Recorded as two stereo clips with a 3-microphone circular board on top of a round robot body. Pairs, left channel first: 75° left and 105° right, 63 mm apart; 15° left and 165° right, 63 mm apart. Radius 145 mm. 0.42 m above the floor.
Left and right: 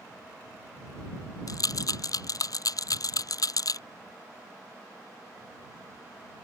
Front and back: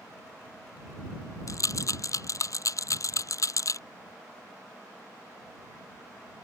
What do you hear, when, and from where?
1.5 s a rattle: 50° left